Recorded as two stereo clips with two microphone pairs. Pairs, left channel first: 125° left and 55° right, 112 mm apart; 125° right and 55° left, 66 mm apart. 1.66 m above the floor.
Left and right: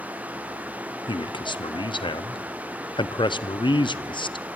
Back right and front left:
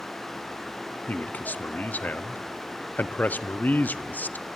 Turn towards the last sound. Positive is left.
turn(degrees=170)